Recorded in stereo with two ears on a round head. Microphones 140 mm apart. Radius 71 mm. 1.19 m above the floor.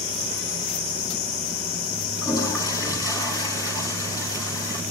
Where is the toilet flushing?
25° left (ahead or behind), 6 m.